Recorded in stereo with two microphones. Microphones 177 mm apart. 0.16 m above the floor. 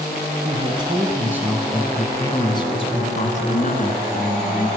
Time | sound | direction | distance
0.5 | a man speaking | 35° right (ahead or behind) | 1.8 m